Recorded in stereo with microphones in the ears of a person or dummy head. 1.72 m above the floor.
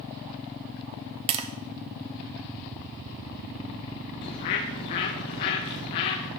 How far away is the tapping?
About 0.7 m.